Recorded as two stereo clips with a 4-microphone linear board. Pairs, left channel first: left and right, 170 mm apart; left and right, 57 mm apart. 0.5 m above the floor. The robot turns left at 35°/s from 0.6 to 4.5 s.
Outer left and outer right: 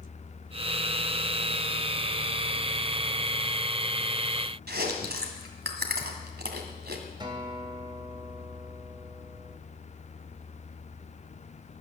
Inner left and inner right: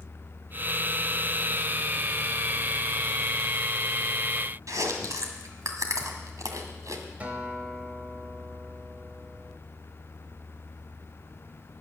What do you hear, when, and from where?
4.7 s chewing: 80° right, 1.9 m
7.2 s a guitar: 25° right (ahead or behind), 2.5 m